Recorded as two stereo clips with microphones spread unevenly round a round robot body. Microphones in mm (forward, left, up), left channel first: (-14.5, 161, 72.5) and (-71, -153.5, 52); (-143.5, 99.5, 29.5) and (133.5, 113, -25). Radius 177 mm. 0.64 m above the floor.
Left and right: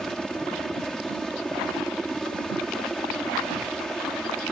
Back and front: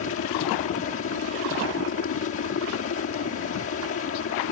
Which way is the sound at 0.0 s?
170° left.